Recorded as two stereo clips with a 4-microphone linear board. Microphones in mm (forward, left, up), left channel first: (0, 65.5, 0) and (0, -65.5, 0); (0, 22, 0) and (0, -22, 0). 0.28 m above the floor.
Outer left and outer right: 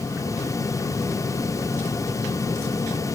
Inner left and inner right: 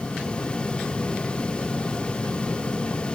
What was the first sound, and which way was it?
Only background noise.